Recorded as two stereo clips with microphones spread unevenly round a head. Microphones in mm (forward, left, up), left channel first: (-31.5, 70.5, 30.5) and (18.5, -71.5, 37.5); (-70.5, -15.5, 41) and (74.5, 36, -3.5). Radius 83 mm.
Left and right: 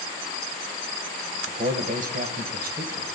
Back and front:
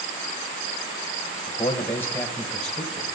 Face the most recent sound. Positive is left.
turn(degrees=-60)